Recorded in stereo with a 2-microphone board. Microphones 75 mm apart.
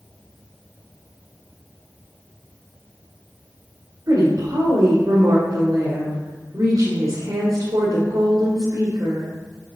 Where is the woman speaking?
50° right (ahead or behind), 1.8 m.